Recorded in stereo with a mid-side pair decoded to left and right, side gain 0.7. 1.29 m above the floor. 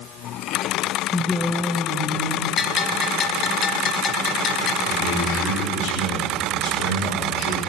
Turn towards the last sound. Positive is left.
turn(degrees=65)